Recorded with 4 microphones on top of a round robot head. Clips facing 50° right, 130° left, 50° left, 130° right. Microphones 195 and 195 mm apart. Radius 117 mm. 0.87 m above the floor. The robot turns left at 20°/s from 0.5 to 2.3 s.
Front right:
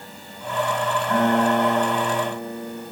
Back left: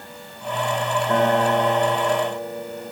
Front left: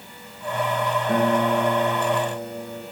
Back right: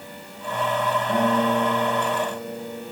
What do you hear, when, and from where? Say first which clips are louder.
1.1 s a guitar: even, front left 1 dB; 70° left, 2.5 m; by 2.8 s 45° left, 2.5 m